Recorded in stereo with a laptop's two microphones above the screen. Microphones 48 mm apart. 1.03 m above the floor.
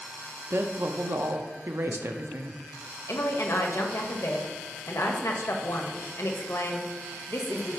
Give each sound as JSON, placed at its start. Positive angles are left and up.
{"t": 0.5, "sound": "a woman speaking", "side_deg": -55, "distance_m": 0.6}
{"t": 3.1, "sound": "a woman speaking", "side_deg": 70, "distance_m": 1.0}